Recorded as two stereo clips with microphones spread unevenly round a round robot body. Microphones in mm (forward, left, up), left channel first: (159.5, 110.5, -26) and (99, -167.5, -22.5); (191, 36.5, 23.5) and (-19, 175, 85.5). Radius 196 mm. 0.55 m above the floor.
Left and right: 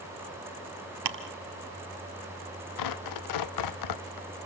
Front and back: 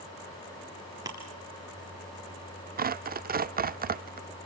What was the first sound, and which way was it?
Ticking, 135° right.